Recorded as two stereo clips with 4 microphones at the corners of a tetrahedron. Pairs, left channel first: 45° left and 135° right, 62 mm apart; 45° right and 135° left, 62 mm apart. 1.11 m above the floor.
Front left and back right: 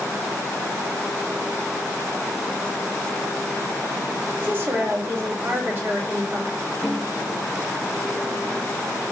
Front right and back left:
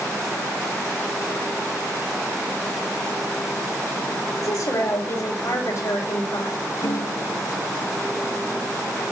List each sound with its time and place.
4.4 s a woman speaking: 75° right, 5.5 m
6.8 s a snare drum: 55° right, 6.5 m